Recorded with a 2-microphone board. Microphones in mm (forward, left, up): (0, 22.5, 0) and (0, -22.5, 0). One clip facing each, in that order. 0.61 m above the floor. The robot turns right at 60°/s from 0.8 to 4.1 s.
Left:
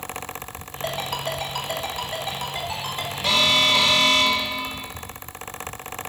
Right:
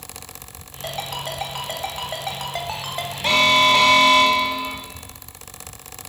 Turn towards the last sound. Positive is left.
turn(degrees=-55)